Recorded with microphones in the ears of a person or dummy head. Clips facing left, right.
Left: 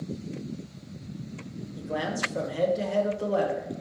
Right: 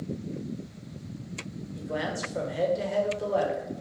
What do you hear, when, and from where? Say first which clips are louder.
1.8 s a man speaking: left 1 dB; centre (ahead or behind), 1.3 m